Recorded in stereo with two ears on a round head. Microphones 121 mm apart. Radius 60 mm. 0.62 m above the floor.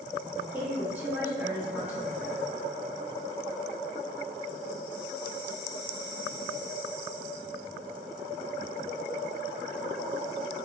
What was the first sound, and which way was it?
A woman speaking, 10° right (ahead or behind).